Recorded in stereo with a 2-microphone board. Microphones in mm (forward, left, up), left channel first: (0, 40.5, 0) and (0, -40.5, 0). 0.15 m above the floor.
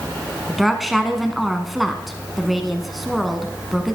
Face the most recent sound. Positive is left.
turn(degrees=0)  # may be behind; listen again after turning